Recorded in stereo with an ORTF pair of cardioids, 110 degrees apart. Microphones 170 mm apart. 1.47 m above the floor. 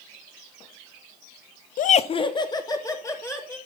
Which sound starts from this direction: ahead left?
Laughter, at 1.8 s.